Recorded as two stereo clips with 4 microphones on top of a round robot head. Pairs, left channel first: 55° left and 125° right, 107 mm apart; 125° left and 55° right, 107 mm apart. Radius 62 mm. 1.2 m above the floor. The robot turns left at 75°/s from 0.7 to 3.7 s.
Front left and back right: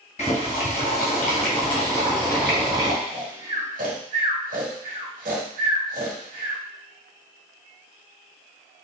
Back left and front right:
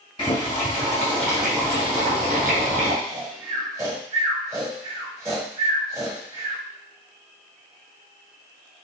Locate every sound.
0.2 s boiling: 85° left, 2.5 m; by 3.0 s 85° right, 2.5 m
3.0 s snoring: 70° right, 2 m; by 6.6 s 115° right, 2 m